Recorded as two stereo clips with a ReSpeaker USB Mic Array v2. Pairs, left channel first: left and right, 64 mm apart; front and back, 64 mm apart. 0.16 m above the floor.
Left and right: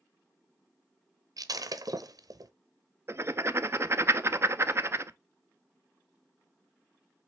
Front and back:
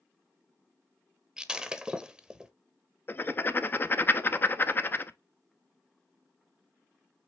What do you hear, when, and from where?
1.4 s breaking glass: 100° right, 0.7 m
3.1 s writing: 50° right, 0.6 m